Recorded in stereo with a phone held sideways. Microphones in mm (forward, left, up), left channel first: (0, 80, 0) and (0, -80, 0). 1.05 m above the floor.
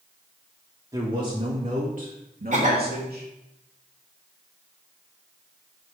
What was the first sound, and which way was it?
A man speaking, 25° right (ahead or behind).